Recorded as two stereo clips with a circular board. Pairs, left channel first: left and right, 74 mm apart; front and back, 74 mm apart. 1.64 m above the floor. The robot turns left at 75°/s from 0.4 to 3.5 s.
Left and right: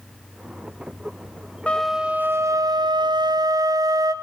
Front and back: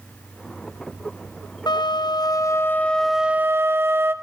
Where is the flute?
20° left, 0.7 m; by 4.1 s 120° right, 0.7 m.